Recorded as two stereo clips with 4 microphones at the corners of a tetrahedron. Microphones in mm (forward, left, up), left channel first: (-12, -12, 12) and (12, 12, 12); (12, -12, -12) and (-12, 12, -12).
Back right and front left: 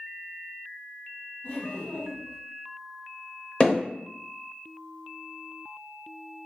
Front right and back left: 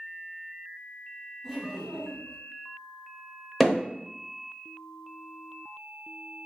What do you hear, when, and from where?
1.4 s laughter: 125° right, 1.0 m
3.6 s hammering: 145° right, 0.8 m